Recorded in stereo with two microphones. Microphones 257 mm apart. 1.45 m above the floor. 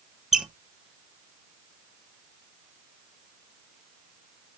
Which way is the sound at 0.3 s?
Centre (ahead or behind).